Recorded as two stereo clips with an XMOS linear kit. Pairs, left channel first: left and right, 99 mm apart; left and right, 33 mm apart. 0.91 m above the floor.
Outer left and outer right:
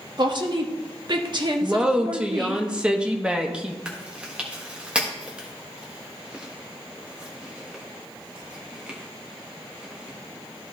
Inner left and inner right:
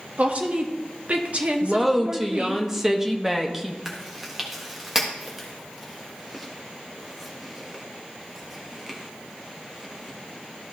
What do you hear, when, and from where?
0.2 s a woman speaking: 50° right (ahead or behind), 1.4 m
1.6 s a woman speaking: 10° right (ahead or behind), 1.0 m
3.9 s chewing: 10° right (ahead or behind), 1.6 m